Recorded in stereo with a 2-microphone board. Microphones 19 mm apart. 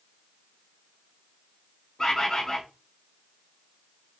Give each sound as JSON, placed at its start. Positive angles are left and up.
{"t": 2.0, "sound": "a bird", "side_deg": 40, "distance_m": 1.3}